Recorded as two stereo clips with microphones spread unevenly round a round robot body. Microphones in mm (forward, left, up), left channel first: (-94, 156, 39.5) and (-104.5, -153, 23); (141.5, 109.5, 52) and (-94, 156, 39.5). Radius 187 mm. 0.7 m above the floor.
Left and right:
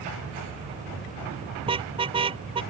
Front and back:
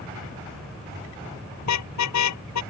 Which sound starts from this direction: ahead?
A car horn, at 1.6 s.